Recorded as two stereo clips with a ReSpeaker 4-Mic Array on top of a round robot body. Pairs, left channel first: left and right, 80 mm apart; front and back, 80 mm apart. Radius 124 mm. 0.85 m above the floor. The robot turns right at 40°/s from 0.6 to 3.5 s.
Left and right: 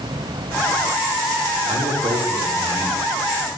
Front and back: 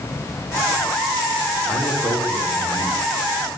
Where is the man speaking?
80° right, 3.5 m; by 3.1 s 25° right, 3.5 m.